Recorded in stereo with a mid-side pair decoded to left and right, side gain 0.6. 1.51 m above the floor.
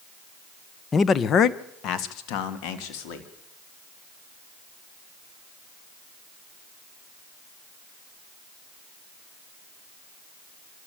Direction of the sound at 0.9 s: 25° left.